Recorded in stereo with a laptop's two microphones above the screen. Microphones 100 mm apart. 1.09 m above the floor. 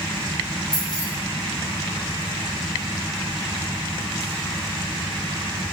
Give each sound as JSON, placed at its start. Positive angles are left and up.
{"t": 0.7, "sound": "keys jangling", "side_deg": 10, "distance_m": 5.5}